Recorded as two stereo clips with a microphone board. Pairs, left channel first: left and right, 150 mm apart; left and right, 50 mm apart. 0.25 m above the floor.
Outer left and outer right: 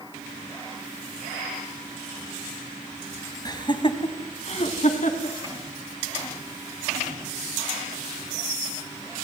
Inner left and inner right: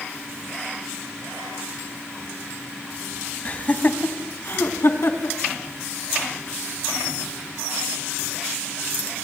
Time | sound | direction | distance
3.5 | laughter | 25° left (ahead or behind) | 2 m